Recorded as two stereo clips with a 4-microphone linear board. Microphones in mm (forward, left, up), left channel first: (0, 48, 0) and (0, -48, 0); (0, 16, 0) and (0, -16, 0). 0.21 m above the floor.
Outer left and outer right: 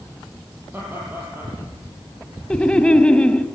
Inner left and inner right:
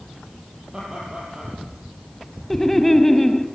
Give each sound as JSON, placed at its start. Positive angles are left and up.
{"t": 0.7, "sound": "laughter", "side_deg": -25, "distance_m": 6.5}
{"t": 2.5, "sound": "laughter", "side_deg": 10, "distance_m": 1.0}